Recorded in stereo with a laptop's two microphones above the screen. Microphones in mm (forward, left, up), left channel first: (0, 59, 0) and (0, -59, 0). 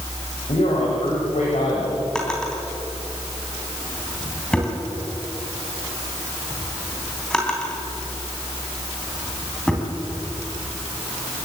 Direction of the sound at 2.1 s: 5° left (ahead or behind).